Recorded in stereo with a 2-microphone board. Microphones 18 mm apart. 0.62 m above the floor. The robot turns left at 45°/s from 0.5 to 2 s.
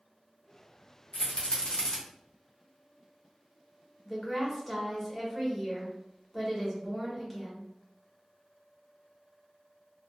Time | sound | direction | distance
1.1 | a rattle | 65° left (ahead or behind) | 1.0 m
4.0 | a woman speaking | 5° right (ahead or behind) | 1.3 m